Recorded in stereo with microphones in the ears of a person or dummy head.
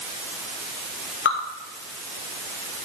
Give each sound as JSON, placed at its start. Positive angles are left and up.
{"t": 1.2, "sound": "dripping", "side_deg": 50, "distance_m": 2.0}